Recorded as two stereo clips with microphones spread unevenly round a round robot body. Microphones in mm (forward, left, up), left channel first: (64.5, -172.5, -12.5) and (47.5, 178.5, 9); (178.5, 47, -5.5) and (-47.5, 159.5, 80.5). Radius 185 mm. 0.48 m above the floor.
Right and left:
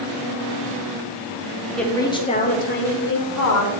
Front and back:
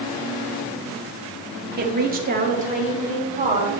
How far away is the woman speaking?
About 1.0 m.